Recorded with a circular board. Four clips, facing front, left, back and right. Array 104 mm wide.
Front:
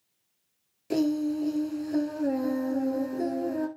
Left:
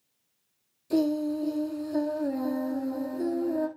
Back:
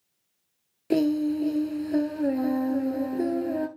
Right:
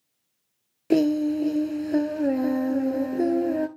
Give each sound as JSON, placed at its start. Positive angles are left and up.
{"t": 0.9, "sound": "singing", "azimuth_deg": -110, "distance_m": 0.9}